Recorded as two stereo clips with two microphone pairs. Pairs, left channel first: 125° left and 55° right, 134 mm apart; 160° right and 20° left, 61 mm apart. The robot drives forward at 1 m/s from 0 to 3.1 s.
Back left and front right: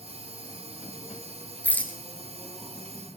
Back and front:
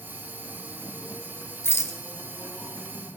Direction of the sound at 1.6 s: 165° right.